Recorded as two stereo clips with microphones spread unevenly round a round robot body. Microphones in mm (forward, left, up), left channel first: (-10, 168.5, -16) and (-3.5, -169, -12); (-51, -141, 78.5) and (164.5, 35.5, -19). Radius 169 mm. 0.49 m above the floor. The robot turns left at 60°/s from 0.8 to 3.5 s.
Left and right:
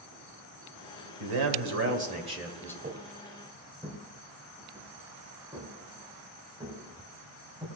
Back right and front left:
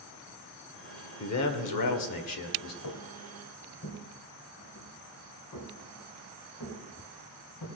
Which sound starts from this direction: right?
A man speaking, at 1.2 s.